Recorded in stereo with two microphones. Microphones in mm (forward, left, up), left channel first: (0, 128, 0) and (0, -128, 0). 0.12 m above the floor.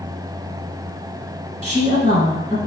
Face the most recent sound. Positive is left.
turn(degrees=-30)  # may be behind; listen again after turning